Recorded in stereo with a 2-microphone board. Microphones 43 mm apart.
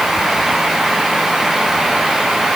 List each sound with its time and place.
Only background noise.